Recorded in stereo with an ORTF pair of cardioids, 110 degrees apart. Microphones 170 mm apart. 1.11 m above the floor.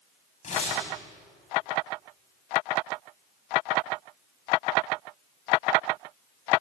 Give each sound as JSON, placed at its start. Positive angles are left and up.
{"t": 0.4, "sound": "tearing paper", "azimuth_deg": 40, "distance_m": 9.5}